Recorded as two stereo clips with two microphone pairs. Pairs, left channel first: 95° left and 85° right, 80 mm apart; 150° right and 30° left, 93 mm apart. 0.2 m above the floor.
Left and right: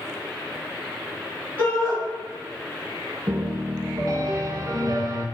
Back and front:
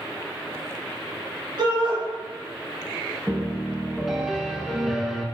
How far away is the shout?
About 1.9 m.